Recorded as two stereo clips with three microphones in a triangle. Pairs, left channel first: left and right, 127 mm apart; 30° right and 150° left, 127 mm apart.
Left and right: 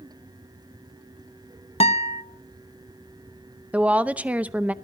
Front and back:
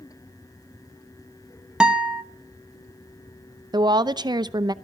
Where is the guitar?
70° left, 0.9 m.